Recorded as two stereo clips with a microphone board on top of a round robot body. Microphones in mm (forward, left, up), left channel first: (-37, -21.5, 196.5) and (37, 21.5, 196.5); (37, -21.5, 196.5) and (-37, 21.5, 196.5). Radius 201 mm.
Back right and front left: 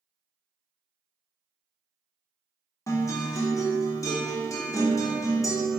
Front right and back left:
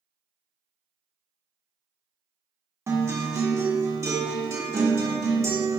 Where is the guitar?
170° right, 1.2 m.